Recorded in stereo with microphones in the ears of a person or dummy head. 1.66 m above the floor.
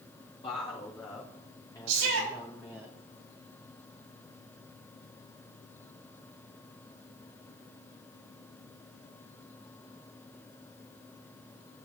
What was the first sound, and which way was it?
A woman speaking, 30° left (ahead or behind).